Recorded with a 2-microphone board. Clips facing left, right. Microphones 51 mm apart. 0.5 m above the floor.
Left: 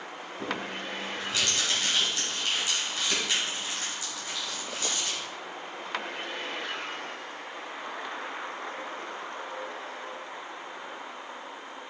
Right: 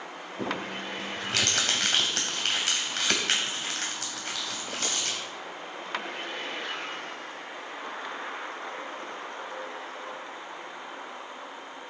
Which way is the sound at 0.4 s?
65° right (ahead or behind).